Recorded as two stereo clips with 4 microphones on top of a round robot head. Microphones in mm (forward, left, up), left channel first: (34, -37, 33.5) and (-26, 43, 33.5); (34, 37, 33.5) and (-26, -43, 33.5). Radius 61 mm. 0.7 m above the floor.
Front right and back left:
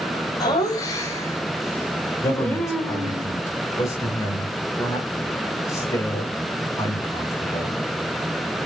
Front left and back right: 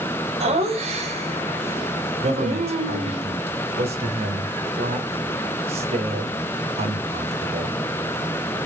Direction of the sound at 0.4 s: 105° right.